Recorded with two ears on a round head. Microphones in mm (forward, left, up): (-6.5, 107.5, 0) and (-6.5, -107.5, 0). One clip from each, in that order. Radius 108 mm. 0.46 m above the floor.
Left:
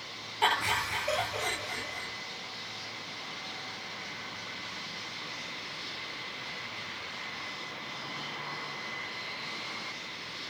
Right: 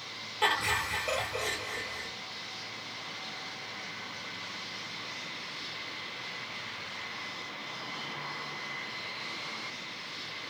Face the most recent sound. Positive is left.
turn(degrees=-5)  # may be behind; listen again after turning